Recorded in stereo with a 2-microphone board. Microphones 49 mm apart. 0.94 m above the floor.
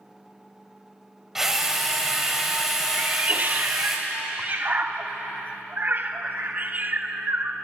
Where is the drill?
10° right (ahead or behind), 1.9 m.